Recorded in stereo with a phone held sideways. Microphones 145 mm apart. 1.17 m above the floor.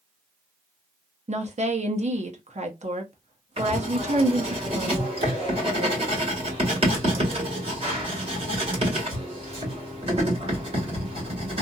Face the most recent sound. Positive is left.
turn(degrees=-40)  # may be behind; listen again after turning